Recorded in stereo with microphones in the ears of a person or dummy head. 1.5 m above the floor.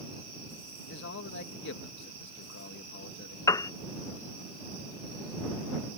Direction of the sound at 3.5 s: 20° left (ahead or behind).